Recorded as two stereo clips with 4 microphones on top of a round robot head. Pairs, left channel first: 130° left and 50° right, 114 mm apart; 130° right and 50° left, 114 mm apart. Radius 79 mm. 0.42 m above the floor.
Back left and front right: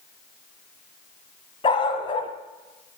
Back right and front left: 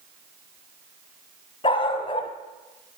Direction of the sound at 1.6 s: Straight behind.